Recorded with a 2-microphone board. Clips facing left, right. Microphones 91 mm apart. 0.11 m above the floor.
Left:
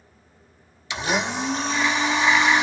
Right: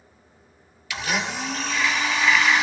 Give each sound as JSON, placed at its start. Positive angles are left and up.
{"t": 0.9, "sound": "a blender", "side_deg": 25, "distance_m": 0.9}